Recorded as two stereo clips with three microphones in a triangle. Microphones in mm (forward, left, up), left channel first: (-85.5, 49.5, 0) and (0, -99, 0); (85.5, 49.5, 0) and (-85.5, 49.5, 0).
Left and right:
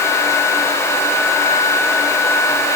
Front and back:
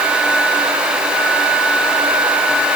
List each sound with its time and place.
Only background noise.